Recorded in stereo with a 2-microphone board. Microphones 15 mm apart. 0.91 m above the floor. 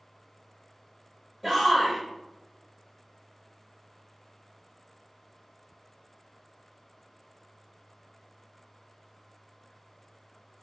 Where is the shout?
Centre (ahead or behind), 0.5 m.